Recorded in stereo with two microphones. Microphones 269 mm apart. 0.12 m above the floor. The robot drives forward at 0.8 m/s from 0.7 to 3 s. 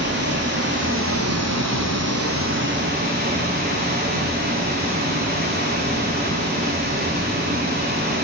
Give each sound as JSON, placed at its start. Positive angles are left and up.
{"t": 0.0, "sound": "running water", "side_deg": -45, "distance_m": 1.1}